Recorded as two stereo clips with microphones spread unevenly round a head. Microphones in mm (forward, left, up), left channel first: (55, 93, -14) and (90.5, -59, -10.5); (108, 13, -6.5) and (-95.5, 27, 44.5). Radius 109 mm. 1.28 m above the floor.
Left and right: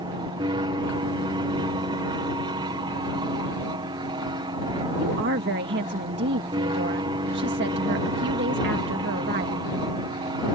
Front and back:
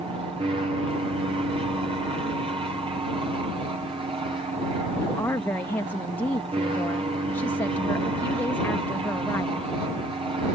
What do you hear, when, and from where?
0.0 s an aircraft: 115° right
5.0 s a woman speaking: 85° right